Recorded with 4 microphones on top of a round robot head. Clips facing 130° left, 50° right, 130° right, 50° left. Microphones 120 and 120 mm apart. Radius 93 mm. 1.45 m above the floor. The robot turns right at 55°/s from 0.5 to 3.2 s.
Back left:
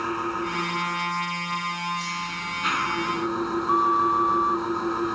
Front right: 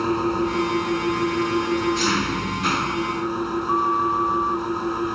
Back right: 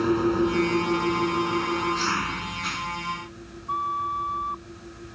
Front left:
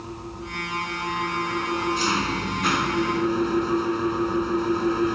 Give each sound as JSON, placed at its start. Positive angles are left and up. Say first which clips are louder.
{"t": 0.0, "sound": "an engine running", "louder": "front right 7 dB, back right 14 dB", "azimuth_deg": -110}
{"t": 3.7, "sound": "a flute", "louder": "back left 1 dB, front left 6 dB", "azimuth_deg": -155}